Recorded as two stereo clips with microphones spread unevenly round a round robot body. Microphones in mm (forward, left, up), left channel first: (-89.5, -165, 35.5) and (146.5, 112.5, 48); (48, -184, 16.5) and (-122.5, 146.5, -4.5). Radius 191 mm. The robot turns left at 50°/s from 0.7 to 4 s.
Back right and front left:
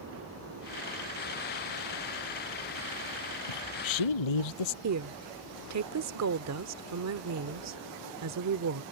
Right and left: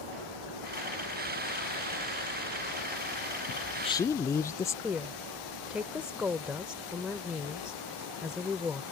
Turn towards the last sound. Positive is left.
turn(degrees=35)